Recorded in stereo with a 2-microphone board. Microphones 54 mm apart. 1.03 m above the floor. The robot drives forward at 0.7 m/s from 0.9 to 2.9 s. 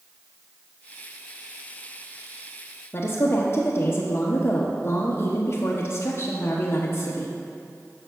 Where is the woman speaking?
45° left (ahead or behind), 0.9 m.